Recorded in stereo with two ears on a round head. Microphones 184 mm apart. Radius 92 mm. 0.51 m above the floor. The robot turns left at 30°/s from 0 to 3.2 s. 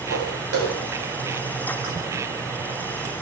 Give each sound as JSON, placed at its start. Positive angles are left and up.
{"t": 0.1, "sound": "footsteps", "side_deg": -80, "distance_m": 7.5}